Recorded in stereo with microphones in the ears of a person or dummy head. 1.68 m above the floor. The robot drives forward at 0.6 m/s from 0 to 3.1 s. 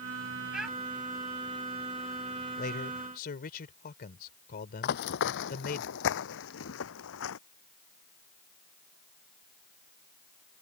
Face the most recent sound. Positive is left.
turn(degrees=70)  # may be behind; listen again after turning